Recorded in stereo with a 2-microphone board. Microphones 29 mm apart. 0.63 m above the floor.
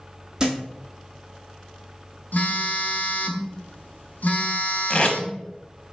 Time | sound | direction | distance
0.4 | a thud | 20° right (ahead or behind) | 1.0 m
2.3 | a phone buzzing | 80° left | 0.6 m
4.9 | tape being pulled | 30° left (ahead or behind) | 0.6 m